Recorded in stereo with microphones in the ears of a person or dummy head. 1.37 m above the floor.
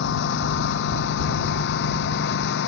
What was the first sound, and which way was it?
A lawn mower, 60° left (ahead or behind).